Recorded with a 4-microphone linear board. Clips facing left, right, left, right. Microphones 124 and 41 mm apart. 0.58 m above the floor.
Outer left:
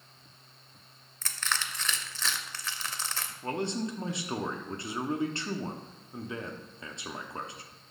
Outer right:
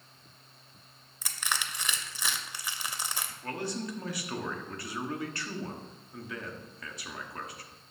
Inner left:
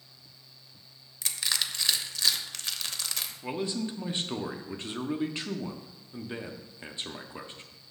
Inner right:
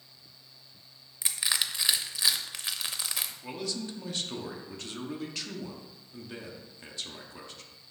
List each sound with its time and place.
1.2 s crushing: 15° right (ahead or behind), 0.6 m
3.4 s a man speaking: 25° left (ahead or behind), 0.6 m